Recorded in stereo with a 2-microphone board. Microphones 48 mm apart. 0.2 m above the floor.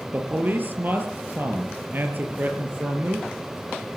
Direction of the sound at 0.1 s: 40° right (ahead or behind).